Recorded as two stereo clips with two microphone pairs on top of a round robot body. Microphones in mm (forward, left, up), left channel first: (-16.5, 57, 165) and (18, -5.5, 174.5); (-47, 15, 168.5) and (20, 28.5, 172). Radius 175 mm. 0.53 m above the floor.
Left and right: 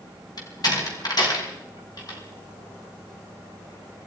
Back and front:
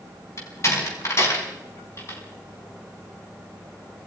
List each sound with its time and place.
0.4 s a door slam: 145° left, 5 m